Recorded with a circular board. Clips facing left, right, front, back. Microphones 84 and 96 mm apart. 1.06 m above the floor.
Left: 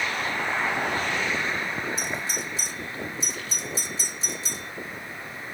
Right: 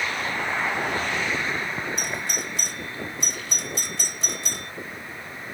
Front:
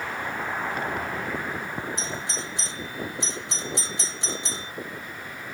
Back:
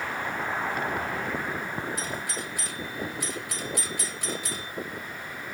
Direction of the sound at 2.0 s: 65° right.